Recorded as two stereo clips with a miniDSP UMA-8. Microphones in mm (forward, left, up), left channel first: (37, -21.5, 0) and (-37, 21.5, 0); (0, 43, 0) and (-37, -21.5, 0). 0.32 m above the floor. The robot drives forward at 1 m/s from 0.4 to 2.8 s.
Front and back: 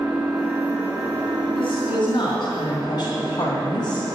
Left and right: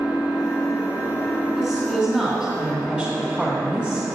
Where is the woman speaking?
15° right, 2.5 m; by 4.1 s 30° right, 1.6 m.